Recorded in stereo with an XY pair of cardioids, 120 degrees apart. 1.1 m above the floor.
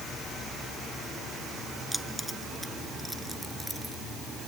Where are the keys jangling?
Straight ahead.